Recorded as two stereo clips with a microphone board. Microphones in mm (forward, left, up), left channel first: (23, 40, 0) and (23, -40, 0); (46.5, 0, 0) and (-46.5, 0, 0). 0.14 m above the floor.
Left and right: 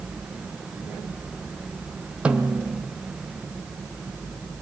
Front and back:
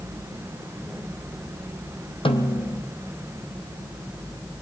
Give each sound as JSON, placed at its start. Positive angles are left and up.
{"t": 2.2, "sound": "a snare drum", "azimuth_deg": -15, "distance_m": 1.4}